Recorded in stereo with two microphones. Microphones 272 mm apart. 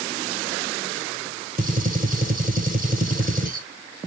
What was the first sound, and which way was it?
A gunshot, 30° right (ahead or behind).